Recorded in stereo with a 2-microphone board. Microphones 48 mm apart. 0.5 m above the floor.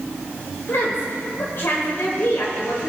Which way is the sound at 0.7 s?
60° left (ahead or behind).